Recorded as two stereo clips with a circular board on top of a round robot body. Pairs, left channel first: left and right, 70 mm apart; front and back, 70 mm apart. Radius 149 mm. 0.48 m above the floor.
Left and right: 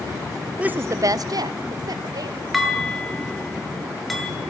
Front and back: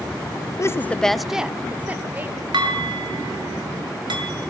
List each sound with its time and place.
0.6 s a woman speaking: 20° right, 0.8 m; by 2.4 s 115° right, 2.5 m
2.5 s dishes clattering: straight behind, 6.5 m